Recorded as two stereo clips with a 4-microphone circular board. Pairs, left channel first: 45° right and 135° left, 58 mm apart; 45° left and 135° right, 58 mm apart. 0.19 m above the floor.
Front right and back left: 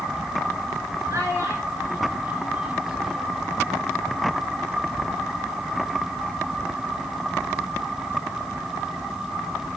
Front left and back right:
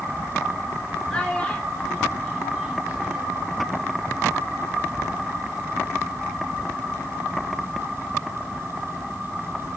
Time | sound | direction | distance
1.1 | a child speaking | 120° left | 2 m